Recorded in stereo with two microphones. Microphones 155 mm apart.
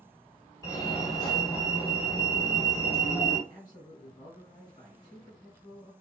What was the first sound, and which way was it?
A fire alarm, 25° left (ahead or behind).